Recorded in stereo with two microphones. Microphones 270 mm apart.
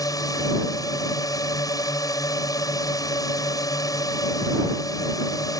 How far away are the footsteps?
No footsteps in this recording.